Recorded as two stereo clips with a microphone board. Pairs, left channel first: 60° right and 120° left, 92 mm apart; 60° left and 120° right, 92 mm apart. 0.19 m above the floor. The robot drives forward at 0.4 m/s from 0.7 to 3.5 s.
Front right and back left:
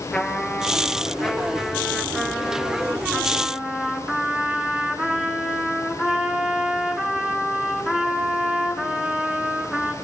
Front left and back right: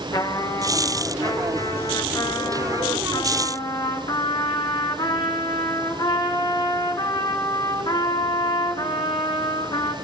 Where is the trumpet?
20° left, 3 m; by 9.9 s 35° left, 2 m.